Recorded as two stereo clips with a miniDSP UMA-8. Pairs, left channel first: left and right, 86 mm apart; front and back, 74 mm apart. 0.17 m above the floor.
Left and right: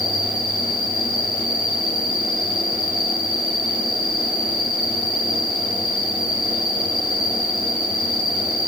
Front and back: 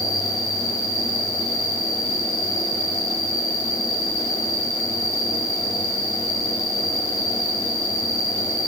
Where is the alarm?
I don't hear an alarm.